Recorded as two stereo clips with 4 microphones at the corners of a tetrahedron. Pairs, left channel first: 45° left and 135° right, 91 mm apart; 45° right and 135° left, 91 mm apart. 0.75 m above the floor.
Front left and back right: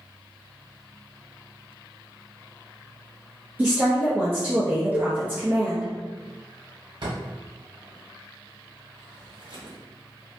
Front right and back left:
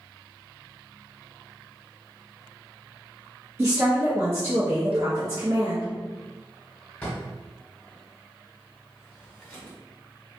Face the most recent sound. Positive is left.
turn(degrees=-125)